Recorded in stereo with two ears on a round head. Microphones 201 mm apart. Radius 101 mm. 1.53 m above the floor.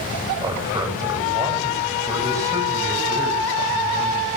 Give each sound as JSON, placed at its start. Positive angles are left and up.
{"t": 0.4, "sound": "a man speaking", "side_deg": -15, "distance_m": 10.0}